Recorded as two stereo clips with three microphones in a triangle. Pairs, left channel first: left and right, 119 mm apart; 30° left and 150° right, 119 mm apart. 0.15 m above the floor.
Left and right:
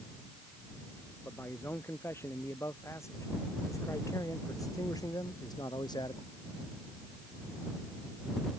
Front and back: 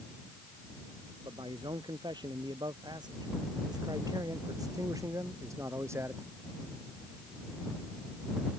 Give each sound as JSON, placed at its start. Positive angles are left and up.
{"t": 1.2, "sound": "a man speaking", "azimuth_deg": 160}